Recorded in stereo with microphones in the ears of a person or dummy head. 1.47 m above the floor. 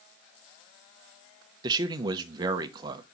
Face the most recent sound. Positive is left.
turn(degrees=-30)  # may be behind; listen again after turning